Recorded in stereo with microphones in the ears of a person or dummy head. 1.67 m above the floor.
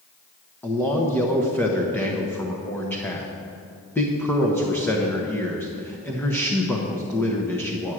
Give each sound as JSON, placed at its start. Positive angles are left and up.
{"t": 0.6, "sound": "a man speaking", "side_deg": 5, "distance_m": 0.8}